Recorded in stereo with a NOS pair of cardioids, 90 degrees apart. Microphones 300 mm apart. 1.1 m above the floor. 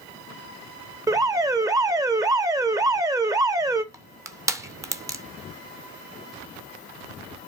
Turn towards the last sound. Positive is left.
turn(degrees=-10)